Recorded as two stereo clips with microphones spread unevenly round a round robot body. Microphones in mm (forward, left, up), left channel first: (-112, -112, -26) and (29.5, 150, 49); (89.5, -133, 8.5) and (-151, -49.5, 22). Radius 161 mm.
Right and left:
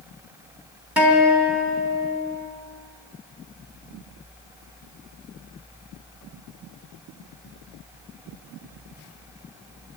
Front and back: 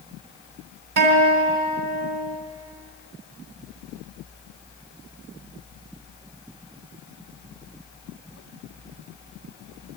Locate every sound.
1.0 s a guitar: 155° left, 3.5 m